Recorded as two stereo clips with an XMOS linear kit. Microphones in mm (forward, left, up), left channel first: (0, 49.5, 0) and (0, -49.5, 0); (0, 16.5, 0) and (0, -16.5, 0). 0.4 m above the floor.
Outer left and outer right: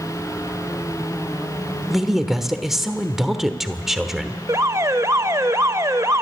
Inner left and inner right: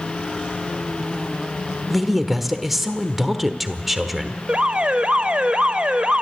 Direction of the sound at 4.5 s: 30° right (ahead or behind).